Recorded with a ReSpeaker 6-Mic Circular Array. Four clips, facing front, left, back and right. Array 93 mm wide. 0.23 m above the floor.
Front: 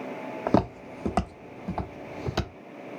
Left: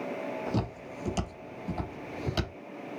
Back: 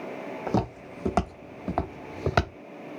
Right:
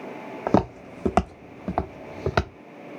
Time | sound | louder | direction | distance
0.5 | footsteps | right 11 dB, front 4 dB | 60° right | 0.7 m